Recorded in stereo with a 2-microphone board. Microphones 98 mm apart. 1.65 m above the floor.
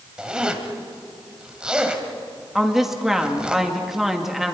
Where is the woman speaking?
5° right (ahead or behind), 2 m.